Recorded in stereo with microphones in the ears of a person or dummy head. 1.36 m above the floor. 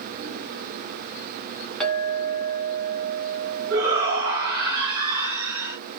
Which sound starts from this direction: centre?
A clink, at 1.8 s.